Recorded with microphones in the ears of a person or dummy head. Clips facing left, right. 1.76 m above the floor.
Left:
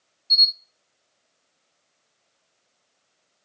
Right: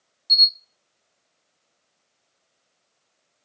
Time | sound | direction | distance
0.3 | a camera shutter | 45° right (ahead or behind) | 1.6 m